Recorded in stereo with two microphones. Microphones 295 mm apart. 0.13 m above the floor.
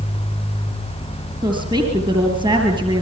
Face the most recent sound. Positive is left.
turn(degrees=-15)  # may be behind; listen again after turning